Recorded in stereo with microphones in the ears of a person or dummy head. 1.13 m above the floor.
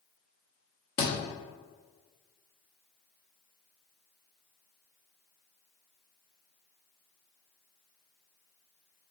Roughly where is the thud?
Left.